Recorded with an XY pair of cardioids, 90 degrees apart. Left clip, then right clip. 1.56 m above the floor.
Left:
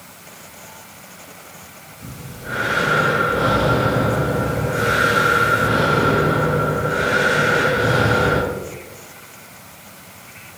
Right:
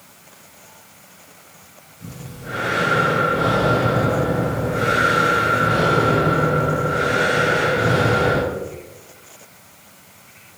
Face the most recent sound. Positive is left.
turn(degrees=30)